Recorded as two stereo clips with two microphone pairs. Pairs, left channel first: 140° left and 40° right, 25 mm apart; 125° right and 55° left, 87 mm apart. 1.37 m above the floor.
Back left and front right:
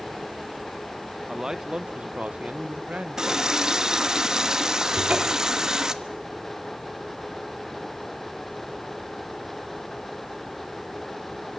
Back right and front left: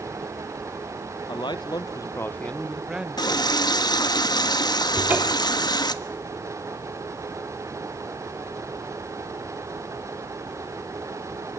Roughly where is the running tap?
Right.